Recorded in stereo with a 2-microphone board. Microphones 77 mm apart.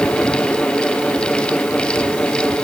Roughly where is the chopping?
I don't hear chopping.